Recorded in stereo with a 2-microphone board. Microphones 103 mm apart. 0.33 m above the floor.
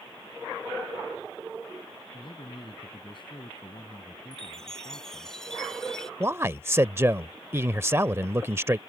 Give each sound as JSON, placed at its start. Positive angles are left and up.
{"t": 2.1, "sound": "a man speaking", "side_deg": 55}
{"t": 4.3, "sound": "a chime", "side_deg": 5}
{"t": 6.2, "sound": "a man speaking", "side_deg": -25}